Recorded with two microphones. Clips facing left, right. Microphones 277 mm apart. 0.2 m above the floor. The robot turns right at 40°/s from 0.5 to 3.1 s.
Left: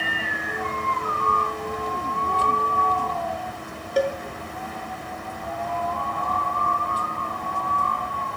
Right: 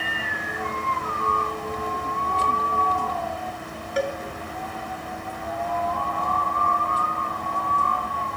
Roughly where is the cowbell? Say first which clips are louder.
Left 3 dB; left.